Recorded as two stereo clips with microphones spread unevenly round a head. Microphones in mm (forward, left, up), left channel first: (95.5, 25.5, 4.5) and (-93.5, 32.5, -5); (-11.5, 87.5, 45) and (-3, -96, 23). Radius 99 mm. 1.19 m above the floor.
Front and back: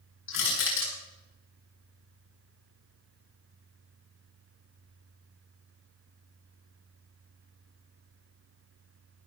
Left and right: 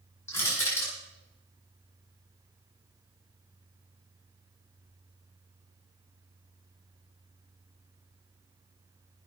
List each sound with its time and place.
0.3 s crushing: 15° left, 9 m